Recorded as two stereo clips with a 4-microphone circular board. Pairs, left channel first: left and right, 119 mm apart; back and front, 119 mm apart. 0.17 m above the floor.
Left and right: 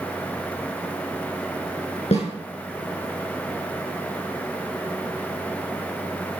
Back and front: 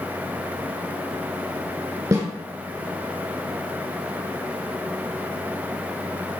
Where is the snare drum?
60° left, 5 m.